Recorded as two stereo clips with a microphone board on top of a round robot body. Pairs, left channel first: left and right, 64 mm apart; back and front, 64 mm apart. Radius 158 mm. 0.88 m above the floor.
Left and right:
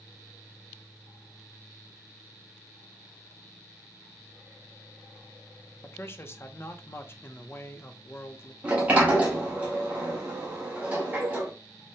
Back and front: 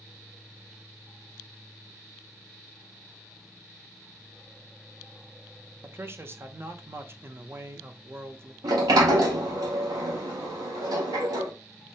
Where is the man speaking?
45° left, 0.7 m.